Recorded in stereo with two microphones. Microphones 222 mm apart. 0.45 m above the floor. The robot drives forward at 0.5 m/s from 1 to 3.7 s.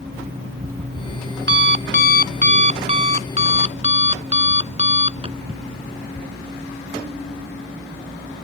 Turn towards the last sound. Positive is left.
turn(degrees=-25)  # may be behind; listen again after turning